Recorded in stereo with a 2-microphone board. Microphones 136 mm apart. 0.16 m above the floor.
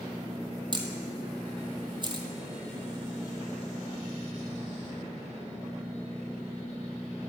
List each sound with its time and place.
0.7 s a camera shutter: 35° right (ahead or behind), 1.1 m